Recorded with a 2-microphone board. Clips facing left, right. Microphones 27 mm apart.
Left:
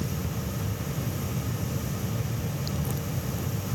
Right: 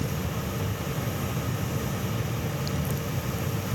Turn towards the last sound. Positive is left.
No sound to turn to.